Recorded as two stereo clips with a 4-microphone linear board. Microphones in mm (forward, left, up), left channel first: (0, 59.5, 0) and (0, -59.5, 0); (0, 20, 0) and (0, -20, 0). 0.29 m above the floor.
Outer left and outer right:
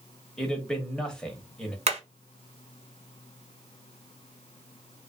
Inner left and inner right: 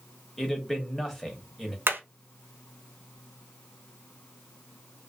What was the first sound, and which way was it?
A man speaking, 10° left (ahead or behind).